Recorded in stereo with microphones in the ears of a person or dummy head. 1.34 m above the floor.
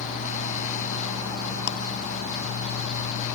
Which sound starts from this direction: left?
Ticking, at 1.7 s.